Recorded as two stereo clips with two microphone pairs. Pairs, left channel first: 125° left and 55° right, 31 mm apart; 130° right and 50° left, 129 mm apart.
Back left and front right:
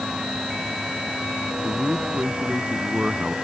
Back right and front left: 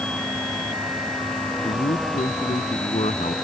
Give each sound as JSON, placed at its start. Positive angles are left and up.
{"t": 1.6, "sound": "a man speaking", "azimuth_deg": -105}